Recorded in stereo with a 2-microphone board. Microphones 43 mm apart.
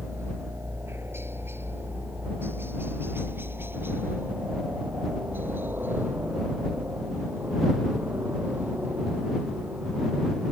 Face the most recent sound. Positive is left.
turn(degrees=-45)  # may be behind; listen again after turning